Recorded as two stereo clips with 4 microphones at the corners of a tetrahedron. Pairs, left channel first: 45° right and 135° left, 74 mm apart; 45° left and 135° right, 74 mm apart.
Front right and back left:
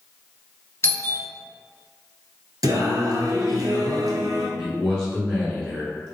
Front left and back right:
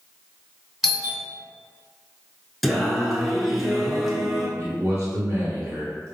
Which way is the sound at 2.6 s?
135° left.